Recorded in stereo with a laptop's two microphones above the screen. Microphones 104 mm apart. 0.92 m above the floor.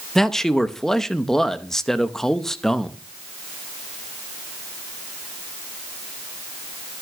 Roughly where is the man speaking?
Centre.